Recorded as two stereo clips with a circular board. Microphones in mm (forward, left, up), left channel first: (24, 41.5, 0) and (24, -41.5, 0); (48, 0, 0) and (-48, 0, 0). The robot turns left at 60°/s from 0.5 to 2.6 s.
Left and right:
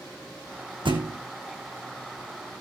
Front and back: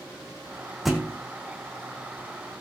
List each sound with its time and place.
0.8 s a thud: 90° right, 2 m; by 1.2 s 115° right, 2 m